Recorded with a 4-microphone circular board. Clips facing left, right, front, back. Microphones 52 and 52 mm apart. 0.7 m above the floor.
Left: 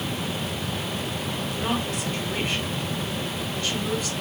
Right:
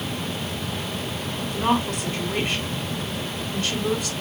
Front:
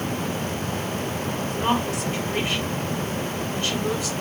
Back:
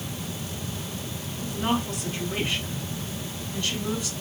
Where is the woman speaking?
55° right, 4 m.